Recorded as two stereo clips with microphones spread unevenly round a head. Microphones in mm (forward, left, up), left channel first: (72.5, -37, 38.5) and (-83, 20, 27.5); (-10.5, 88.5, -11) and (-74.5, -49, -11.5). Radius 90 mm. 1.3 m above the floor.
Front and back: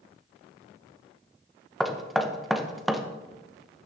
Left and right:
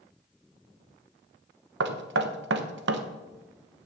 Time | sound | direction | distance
1.8 | knocking | 110° right | 0.9 m